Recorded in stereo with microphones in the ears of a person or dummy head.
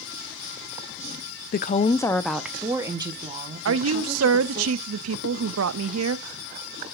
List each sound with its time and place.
1.5 s a woman speaking: 50° left (ahead or behind), 0.6 m; by 4.7 s 30° right (ahead or behind), 2 m
3.6 s a woman speaking: 70° right (ahead or behind), 0.6 m